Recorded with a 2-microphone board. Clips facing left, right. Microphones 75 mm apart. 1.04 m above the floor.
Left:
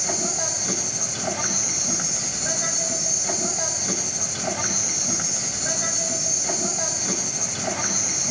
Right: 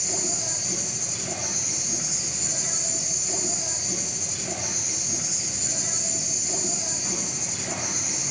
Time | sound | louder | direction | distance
0.0 | an insect | left 5 dB | 65° left (ahead or behind) | 5 m